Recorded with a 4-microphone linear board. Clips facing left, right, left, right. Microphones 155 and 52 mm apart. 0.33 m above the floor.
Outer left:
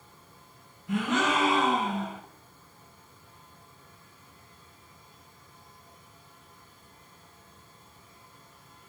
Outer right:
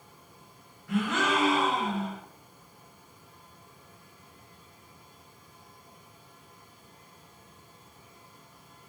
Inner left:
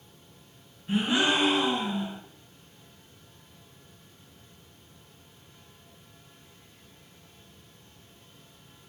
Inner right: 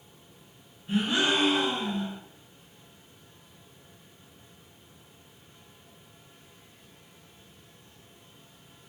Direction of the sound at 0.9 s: 20° left (ahead or behind).